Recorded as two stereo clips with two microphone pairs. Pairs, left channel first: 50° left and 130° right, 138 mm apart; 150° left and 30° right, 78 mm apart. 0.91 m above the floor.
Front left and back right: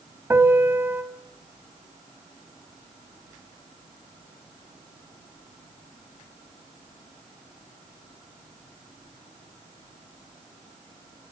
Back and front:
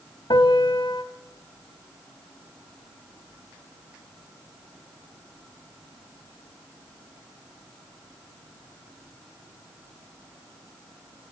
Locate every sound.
0.3 s a piano: 155° left, 1.6 m